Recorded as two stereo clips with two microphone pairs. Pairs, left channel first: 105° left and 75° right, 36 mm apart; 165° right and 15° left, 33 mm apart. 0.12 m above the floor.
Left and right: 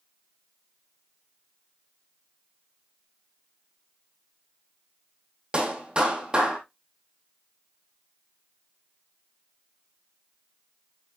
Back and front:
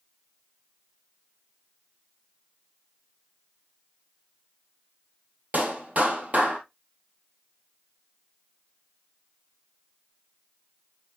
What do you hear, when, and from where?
5.5 s a clap: 15° right, 3 m